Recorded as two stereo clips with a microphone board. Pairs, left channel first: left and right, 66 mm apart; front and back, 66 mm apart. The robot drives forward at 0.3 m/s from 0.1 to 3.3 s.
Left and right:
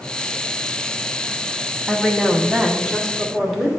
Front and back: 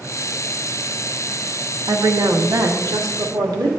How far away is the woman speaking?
About 0.7 m.